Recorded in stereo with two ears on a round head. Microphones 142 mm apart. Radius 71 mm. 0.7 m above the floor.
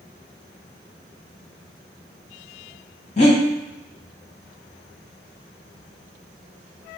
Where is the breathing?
45° left (ahead or behind), 1.2 m.